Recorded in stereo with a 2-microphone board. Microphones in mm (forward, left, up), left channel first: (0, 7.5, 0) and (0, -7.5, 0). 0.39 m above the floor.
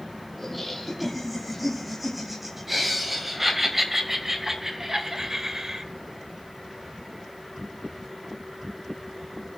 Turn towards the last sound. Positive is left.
turn(degrees=-35)  # may be behind; listen again after turning